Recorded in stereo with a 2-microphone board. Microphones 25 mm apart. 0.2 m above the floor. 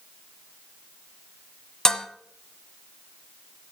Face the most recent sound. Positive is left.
turn(degrees=25)  # may be behind; listen again after turning